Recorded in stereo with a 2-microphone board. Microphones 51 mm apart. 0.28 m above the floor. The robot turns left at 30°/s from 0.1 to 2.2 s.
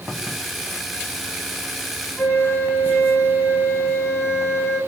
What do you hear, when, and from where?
2.2 s a flute: 60° left (ahead or behind), 1.6 m